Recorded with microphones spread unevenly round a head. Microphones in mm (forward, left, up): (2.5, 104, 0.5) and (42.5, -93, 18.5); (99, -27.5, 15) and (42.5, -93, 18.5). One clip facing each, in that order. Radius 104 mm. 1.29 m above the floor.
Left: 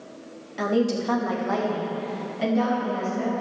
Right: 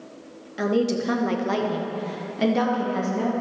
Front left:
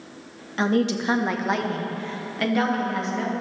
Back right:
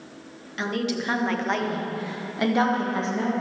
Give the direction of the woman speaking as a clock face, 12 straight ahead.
12 o'clock.